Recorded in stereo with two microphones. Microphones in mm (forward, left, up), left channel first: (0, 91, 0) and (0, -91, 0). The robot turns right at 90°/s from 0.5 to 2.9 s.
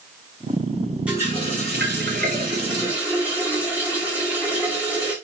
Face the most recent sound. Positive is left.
turn(degrees=-10)